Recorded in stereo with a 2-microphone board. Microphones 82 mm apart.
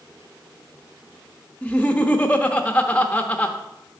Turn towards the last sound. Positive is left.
turn(degrees=20)  # may be behind; listen again after turning